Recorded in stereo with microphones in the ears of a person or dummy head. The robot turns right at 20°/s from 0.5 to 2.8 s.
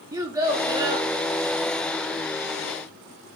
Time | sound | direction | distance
0.1 | a child speaking | 10° right (ahead or behind) | 0.5 m